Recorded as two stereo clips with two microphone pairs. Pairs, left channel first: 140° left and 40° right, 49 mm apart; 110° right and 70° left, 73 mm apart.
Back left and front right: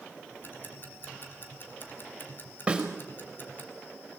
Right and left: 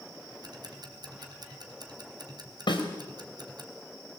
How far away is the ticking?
About 1.8 m.